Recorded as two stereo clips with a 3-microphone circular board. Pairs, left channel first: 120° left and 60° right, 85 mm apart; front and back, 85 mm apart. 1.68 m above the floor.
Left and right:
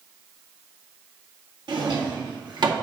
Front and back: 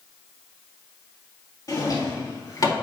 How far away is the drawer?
About 1.9 m.